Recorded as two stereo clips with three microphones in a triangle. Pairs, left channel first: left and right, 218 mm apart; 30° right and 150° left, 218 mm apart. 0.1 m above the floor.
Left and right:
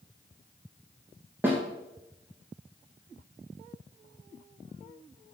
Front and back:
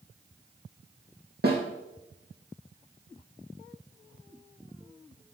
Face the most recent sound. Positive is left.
turn(degrees=-170)